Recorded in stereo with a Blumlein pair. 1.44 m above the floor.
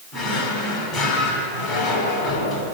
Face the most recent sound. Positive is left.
turn(degrees=20)